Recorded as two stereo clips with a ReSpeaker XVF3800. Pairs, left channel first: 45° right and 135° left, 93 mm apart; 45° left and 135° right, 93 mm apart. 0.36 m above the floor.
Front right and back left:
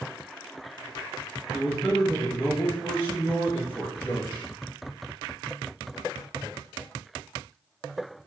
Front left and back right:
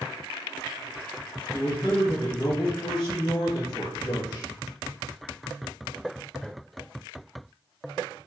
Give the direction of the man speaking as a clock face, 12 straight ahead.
11 o'clock.